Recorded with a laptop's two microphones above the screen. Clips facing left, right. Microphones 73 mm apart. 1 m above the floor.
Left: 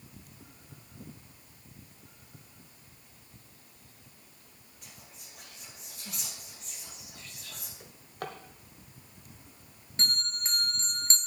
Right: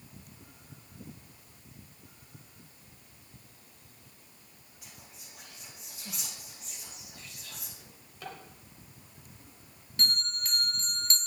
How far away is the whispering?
About 1.1 m.